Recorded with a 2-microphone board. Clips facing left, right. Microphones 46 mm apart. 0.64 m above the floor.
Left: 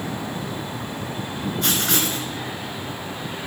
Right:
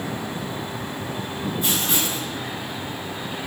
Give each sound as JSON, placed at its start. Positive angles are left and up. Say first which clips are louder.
{"t": 1.6, "sound": "writing", "louder": "left 3 dB", "side_deg": 65, "distance_m": 2.5}